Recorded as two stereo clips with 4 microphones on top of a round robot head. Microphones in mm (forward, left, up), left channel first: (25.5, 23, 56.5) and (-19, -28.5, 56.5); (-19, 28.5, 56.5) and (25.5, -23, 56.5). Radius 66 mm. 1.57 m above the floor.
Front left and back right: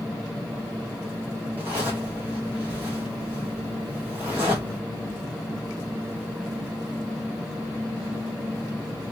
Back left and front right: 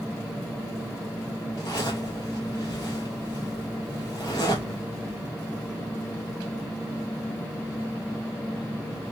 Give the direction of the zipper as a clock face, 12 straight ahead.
7 o'clock.